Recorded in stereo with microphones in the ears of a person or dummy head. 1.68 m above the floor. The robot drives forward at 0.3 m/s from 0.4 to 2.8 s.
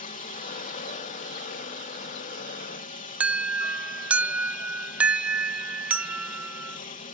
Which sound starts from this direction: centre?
An alarm, at 3.2 s.